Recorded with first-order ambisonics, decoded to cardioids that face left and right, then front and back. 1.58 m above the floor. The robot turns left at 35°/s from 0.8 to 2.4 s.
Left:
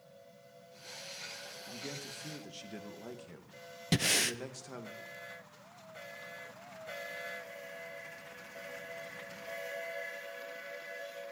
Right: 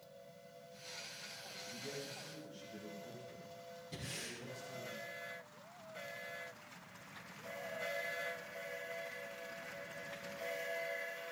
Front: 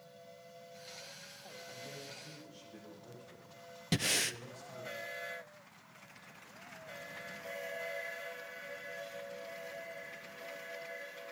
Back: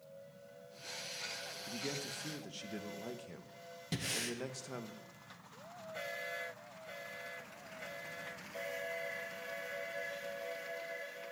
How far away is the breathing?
About 0.7 m.